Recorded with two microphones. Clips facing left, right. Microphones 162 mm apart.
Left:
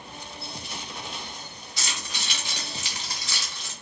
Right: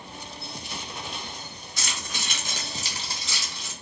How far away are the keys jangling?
About 1.1 m.